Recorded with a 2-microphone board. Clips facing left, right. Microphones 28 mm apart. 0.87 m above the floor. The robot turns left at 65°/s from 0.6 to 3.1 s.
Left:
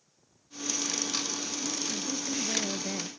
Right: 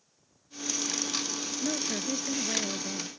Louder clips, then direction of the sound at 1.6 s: Right 5 dB; 110° right.